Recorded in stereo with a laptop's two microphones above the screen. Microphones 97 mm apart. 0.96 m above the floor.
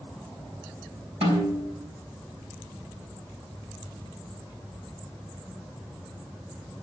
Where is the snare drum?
80° right, 4.5 m.